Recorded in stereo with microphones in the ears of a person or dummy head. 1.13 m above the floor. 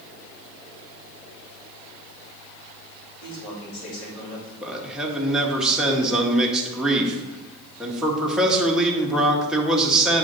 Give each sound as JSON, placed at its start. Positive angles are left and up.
{"t": 3.2, "sound": "a man speaking", "side_deg": 80, "distance_m": 4.0}
{"t": 4.6, "sound": "a man speaking", "side_deg": -5, "distance_m": 1.4}